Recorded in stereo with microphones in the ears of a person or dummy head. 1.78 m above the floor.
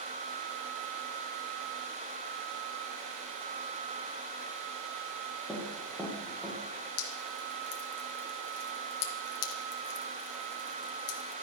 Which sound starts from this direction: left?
Dripping, at 7.0 s.